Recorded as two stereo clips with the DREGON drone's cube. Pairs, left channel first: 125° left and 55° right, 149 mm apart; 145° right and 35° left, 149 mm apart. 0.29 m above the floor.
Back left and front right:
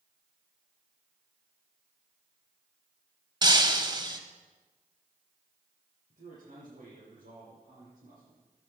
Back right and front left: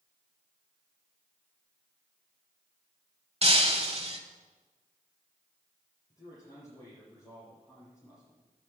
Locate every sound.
3.4 s breaking glass: 5° right, 1.3 m
6.1 s a man speaking: 80° right, 7 m